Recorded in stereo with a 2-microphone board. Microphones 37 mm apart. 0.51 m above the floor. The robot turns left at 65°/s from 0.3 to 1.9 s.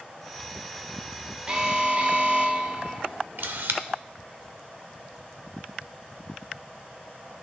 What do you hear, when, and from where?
1.5 s an alarm: 20° right (ahead or behind), 0.9 m; by 3.1 s 30° right (ahead or behind), 0.9 m
3.4 s a camera shutter: 65° right (ahead or behind), 0.8 m